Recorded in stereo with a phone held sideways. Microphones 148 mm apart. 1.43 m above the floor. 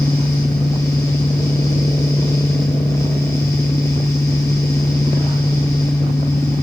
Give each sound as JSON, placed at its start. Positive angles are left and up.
{"t": 0.0, "sound": "a fan", "side_deg": 20, "distance_m": 5.5}